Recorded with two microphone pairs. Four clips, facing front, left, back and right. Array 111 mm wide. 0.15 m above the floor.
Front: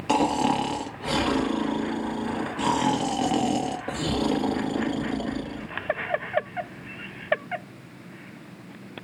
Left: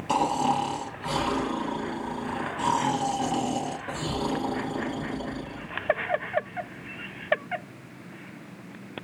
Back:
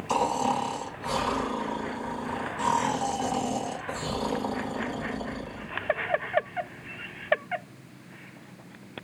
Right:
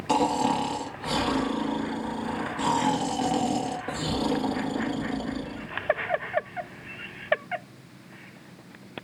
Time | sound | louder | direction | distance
0.1 | snoring | right 1 dB, front 3 dB | 20° right | 2 m